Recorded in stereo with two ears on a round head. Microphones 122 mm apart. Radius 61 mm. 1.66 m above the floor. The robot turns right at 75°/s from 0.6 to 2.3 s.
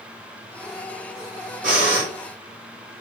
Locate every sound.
1.6 s breathing: 105° right, 2.5 m; by 2.1 s 75° right, 2.5 m